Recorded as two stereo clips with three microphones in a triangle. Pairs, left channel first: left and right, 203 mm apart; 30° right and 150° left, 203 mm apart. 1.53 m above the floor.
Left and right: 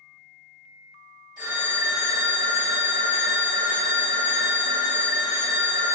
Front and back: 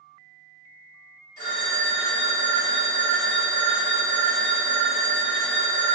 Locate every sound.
1.4 s a phone ringing: 20° left, 2.0 m